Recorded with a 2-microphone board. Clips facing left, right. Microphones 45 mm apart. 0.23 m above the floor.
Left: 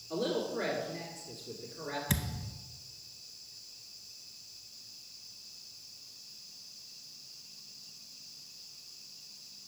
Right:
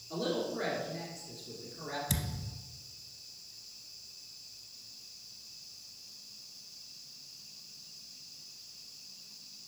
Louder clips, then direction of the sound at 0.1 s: Left 1 dB; 15° left (ahead or behind).